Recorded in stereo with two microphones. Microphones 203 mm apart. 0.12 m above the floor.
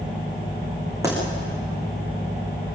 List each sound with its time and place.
1.0 s a pop: 15° right (ahead or behind), 7 m